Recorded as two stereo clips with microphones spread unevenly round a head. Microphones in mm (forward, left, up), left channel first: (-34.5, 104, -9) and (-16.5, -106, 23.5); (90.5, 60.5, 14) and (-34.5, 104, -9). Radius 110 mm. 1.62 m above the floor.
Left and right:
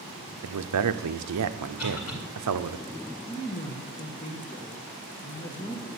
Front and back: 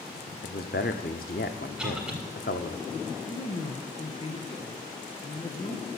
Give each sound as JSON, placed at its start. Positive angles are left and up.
{"t": 0.4, "sound": "a man speaking", "azimuth_deg": -65, "distance_m": 0.7}
{"t": 1.8, "sound": "a cough", "azimuth_deg": 75, "distance_m": 6.5}
{"t": 3.3, "sound": "a man speaking", "azimuth_deg": 25, "distance_m": 1.3}